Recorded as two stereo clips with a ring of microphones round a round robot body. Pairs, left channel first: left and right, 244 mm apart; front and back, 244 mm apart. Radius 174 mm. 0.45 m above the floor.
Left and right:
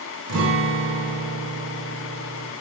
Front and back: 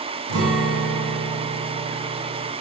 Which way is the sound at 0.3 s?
135° right.